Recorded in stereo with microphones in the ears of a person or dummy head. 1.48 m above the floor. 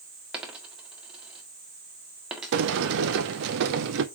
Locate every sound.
0.3 s a dropped coin: centre (ahead or behind), 1.6 m
2.5 s a sliding door: 65° right (ahead or behind), 0.8 m